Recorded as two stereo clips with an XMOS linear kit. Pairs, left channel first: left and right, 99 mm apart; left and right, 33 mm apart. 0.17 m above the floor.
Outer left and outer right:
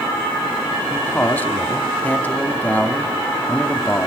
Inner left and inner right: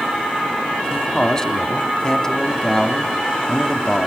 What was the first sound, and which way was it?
A man speaking, 15° left (ahead or behind).